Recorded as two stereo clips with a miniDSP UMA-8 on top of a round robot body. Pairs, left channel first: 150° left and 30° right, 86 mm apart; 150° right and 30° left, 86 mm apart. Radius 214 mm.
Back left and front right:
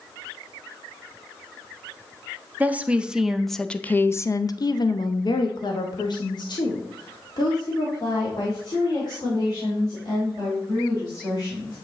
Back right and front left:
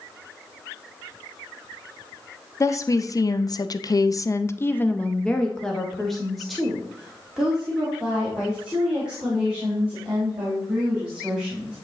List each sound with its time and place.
2.6 s a woman speaking: 100° right, 1.0 m; by 11.7 s 110° left, 4 m